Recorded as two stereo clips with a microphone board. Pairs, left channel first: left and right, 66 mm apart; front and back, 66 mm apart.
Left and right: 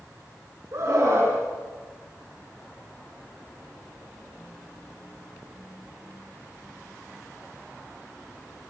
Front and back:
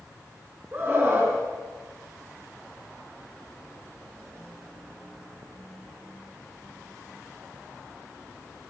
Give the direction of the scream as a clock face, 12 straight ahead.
4 o'clock.